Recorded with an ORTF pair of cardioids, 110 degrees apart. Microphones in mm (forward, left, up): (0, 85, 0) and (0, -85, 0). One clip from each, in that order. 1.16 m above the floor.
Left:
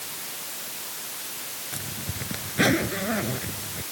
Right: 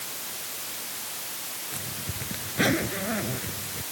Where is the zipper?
15° left.